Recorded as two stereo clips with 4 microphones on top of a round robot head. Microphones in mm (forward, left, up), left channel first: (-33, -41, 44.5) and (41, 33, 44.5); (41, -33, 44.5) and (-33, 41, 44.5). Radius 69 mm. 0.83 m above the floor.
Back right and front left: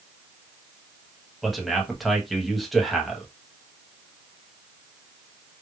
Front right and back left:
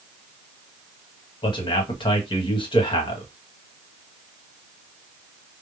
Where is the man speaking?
45° right, 1.2 m.